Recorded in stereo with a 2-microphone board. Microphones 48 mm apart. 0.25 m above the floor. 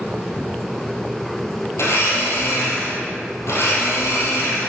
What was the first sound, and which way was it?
A blender, 70° left (ahead or behind).